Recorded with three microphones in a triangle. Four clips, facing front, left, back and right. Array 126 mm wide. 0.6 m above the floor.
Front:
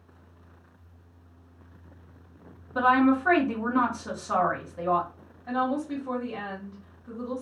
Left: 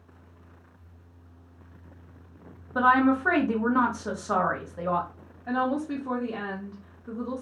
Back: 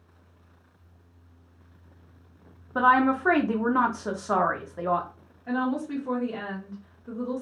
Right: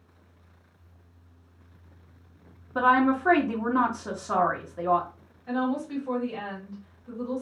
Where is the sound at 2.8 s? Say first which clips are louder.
Left 1 dB, even; 170° left, 0.9 m.